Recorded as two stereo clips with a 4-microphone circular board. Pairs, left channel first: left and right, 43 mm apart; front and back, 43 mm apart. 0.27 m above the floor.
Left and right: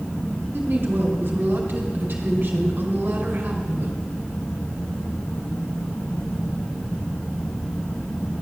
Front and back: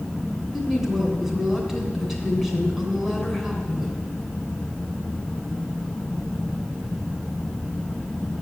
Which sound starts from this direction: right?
A woman speaking, at 0.5 s.